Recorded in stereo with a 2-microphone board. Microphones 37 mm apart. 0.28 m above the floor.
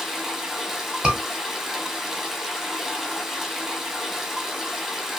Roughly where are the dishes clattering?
No dishes clattering in this recording.